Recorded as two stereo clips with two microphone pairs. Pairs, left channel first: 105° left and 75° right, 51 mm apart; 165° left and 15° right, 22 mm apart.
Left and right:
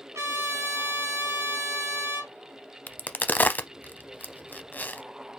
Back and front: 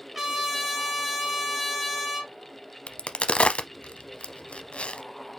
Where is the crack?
160° left, 0.5 m.